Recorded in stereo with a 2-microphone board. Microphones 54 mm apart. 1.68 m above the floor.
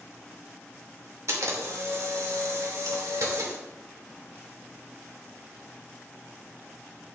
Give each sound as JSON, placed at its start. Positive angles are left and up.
{"t": 1.3, "sound": "a camera shutter", "side_deg": -70, "distance_m": 3.0}